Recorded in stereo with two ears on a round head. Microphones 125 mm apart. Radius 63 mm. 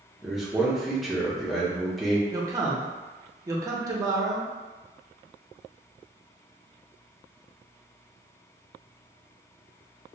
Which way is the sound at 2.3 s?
25° right (ahead or behind).